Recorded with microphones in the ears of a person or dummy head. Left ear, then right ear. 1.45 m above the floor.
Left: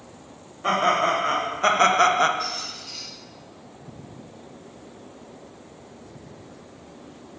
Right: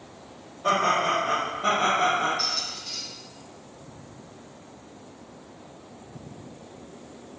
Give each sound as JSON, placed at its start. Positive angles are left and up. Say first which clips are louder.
{"t": 0.6, "sound": "laughter", "louder": "left 2 dB", "side_deg": 30, "distance_m": 1.1}
{"t": 2.4, "sound": "a squeak", "louder": "right 2 dB", "side_deg": -65, "distance_m": 0.9}